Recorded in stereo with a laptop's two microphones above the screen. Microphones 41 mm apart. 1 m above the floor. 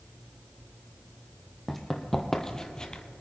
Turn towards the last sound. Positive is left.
turn(degrees=20)  # may be behind; listen again after turning